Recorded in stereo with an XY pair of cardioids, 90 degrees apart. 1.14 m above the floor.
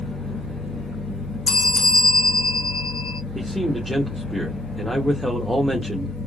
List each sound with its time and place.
0.0 s a fan: 40° left, 1.6 m
1.5 s a bell: 20° left, 0.9 m
3.4 s a man speaking: straight ahead, 1.3 m